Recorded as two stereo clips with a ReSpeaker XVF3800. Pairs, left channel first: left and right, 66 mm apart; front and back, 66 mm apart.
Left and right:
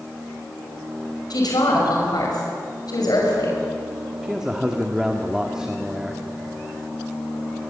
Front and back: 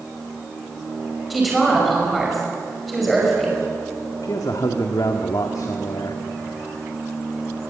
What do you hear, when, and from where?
1.3 s a woman speaking: 90° left, 5.5 m
4.2 s a man speaking: 10° right, 1.6 m